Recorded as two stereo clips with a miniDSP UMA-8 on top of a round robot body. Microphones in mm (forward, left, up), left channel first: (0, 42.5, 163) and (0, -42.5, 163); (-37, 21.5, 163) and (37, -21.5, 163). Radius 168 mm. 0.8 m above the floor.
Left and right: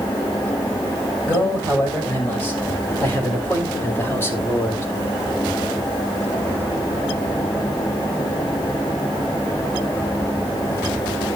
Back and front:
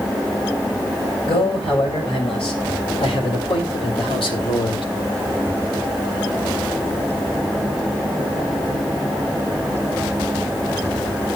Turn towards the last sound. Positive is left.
turn(degrees=150)